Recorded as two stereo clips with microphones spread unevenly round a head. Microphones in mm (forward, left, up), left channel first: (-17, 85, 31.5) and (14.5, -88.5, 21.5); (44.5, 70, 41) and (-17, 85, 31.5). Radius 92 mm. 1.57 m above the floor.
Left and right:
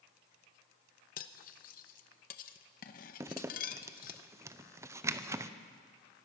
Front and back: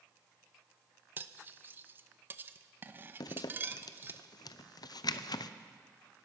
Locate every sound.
1.2 s cutlery clinking: 110° left, 0.9 m
3.2 s a zipper: 5° right, 0.7 m